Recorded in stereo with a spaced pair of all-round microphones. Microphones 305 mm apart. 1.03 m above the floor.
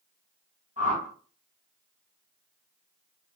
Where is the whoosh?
25° right (ahead or behind), 2 m.